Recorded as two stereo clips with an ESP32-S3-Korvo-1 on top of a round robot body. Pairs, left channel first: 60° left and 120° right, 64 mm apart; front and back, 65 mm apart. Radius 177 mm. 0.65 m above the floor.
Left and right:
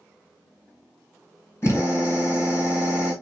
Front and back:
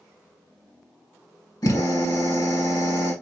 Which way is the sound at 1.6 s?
15° left.